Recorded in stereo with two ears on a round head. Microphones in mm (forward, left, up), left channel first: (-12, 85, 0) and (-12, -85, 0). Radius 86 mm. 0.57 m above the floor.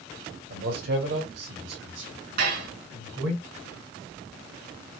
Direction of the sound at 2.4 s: 55° right (ahead or behind).